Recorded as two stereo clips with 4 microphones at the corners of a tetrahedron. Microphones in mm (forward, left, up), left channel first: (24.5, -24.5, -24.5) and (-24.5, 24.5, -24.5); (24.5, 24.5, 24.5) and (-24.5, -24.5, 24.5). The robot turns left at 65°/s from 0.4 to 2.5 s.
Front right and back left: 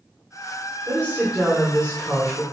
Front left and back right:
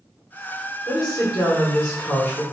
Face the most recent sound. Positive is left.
turn(degrees=-25)